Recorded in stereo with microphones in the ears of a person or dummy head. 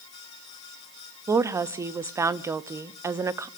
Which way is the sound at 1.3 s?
20° right (ahead or behind).